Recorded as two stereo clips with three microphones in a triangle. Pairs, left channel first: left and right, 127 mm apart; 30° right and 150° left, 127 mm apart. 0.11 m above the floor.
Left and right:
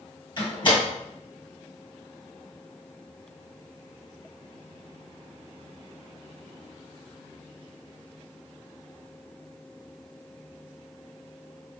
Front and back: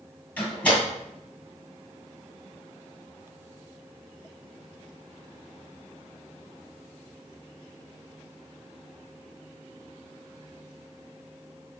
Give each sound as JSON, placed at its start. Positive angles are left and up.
{"t": 0.4, "sound": "a door slam", "azimuth_deg": 45, "distance_m": 2.0}